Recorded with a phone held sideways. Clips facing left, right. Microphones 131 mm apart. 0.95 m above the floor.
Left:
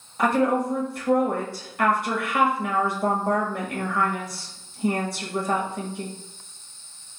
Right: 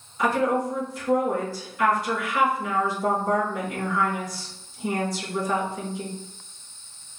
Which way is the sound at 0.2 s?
60° left (ahead or behind).